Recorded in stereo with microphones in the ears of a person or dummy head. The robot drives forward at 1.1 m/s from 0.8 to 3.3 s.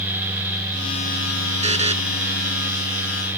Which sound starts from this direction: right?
A buzzer, at 1.6 s.